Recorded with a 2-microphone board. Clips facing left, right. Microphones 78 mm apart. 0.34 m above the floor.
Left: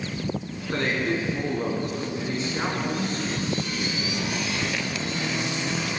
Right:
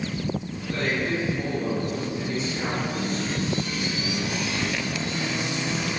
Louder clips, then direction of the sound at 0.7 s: Left 1 dB; 70° left (ahead or behind).